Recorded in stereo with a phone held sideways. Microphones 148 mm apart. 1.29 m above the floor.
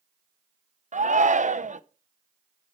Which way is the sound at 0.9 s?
60° right (ahead or behind).